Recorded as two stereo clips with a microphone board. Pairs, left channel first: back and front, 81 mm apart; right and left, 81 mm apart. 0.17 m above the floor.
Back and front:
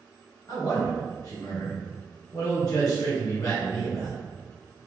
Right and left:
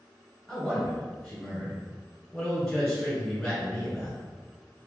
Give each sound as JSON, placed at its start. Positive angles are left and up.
{"t": 0.5, "sound": "a man speaking", "azimuth_deg": -165, "distance_m": 2.0}